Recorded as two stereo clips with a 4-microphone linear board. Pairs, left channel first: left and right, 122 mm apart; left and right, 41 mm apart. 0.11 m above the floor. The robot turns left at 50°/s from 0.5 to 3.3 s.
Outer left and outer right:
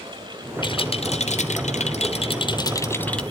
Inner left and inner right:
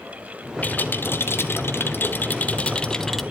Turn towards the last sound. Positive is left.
turn(degrees=5)